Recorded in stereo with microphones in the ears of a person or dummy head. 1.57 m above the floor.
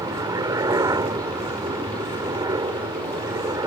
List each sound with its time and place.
0.0 s a helicopter: 20° right (ahead or behind)